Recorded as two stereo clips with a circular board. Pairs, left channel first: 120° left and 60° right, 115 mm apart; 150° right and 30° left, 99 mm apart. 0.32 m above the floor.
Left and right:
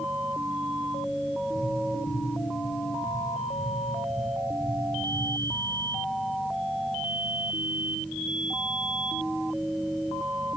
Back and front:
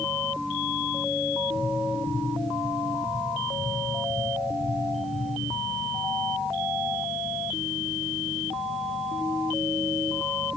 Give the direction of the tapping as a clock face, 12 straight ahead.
11 o'clock.